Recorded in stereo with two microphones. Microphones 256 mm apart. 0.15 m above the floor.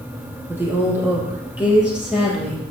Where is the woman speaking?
10° right (ahead or behind), 5 m; by 2.7 s centre (ahead or behind), 4 m.